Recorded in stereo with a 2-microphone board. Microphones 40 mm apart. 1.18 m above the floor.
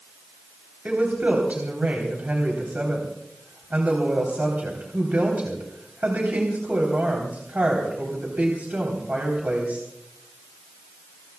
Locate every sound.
0.8 s a woman speaking: 40° right (ahead or behind), 3.5 m